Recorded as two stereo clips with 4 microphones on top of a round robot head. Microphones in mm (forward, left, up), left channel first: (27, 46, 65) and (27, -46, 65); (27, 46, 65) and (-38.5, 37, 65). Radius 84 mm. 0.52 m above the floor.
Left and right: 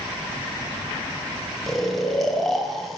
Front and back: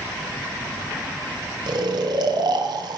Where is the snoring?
Straight behind, 1.2 m.